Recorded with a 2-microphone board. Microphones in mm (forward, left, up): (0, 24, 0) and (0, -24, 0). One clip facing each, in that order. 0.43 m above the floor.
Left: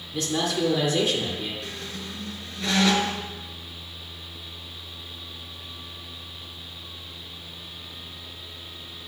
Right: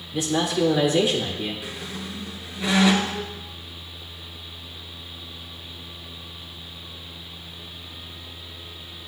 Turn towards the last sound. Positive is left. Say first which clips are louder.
# right 2 dB
turn(degrees=-10)  # may be behind; listen again after turning